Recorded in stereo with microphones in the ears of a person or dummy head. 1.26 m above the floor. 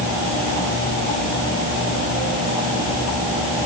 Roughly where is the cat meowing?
I don't hear a cat meowing.